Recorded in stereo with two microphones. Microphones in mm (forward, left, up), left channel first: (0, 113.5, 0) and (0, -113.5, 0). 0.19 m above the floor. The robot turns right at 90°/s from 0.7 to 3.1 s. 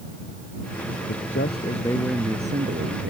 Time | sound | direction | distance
1.1 | a man speaking | 90° left | ?